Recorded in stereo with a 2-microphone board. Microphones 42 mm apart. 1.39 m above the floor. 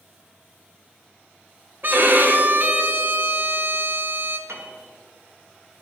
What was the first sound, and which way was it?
A violin, 50° right (ahead or behind).